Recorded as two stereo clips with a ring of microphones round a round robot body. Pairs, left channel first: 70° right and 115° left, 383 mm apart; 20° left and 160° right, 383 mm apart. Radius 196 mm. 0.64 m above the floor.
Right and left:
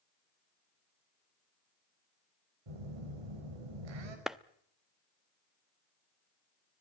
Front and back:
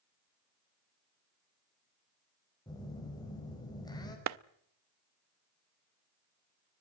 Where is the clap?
160° right, 0.7 m.